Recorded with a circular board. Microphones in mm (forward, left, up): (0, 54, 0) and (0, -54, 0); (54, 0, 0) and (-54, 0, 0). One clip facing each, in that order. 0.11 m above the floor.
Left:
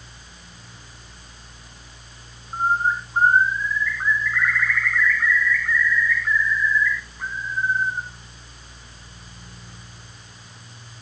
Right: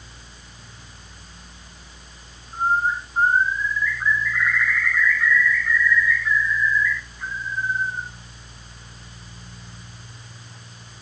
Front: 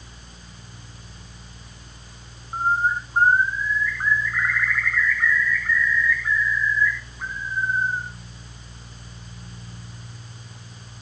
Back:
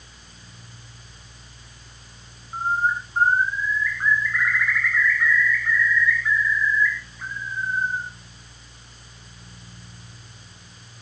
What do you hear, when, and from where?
2.5 s a bird: 55° left, 3.5 m